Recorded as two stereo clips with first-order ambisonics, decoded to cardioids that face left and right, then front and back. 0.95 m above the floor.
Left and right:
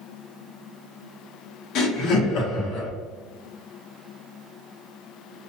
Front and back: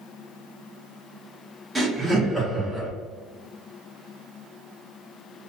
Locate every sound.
1.8 s laughter: 100° left, 0.8 m